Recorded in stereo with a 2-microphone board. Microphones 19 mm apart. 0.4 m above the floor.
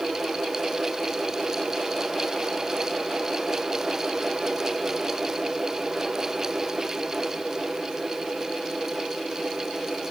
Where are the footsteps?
I don't hear footsteps.